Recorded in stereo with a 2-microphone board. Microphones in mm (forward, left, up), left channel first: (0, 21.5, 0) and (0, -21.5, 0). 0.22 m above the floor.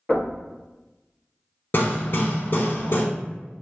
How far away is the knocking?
About 1.8 m.